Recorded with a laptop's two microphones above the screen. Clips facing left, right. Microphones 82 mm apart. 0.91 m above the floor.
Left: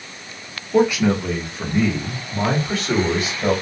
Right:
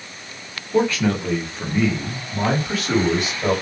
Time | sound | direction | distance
0.7 | a man speaking | 15° left (ahead or behind) | 0.9 m